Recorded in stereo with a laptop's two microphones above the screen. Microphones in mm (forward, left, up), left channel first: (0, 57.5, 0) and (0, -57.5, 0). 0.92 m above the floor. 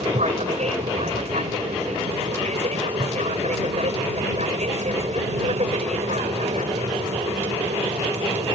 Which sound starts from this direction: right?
An aircraft, at 0.0 s.